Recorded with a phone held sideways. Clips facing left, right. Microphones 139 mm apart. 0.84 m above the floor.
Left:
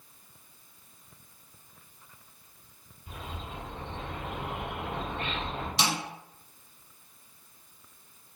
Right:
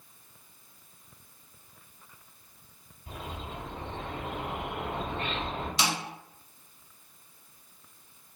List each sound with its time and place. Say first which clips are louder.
3.1 s a bird: right 2 dB; 65° right (ahead or behind), 1.7 m
5.8 s a snare drum: left 1 dB; 25° left (ahead or behind), 1.3 m